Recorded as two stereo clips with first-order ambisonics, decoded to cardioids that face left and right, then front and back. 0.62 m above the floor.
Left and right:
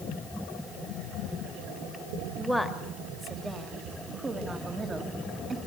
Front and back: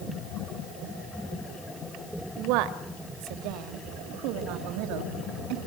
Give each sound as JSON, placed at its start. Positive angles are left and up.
{"t": 2.4, "sound": "a woman speaking", "azimuth_deg": 180, "distance_m": 2.0}